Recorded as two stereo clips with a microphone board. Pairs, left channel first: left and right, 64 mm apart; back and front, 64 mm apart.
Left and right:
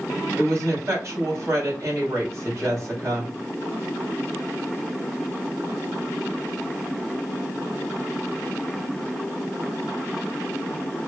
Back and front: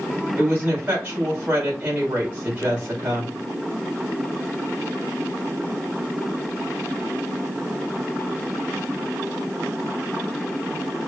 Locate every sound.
0.4 s a woman speaking: 55° right, 2.5 m